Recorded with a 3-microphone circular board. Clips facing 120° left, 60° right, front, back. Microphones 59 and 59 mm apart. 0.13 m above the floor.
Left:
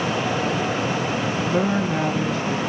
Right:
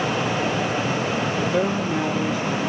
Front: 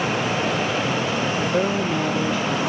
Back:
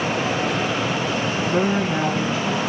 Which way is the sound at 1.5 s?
160° left.